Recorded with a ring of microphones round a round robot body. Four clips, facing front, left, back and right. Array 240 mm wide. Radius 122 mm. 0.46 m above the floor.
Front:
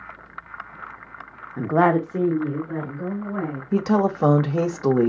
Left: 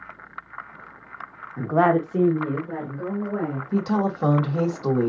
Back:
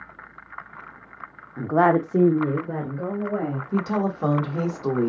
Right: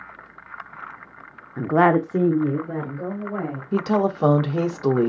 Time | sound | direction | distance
1.6 | a woman speaking | 45° right | 0.8 m
3.7 | a woman speaking | 35° right | 0.9 m